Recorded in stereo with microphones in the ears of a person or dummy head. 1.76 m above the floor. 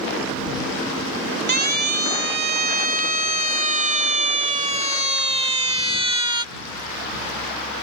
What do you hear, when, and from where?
1.5 s a siren: 55° right (ahead or behind); by 6.5 s 25° right (ahead or behind)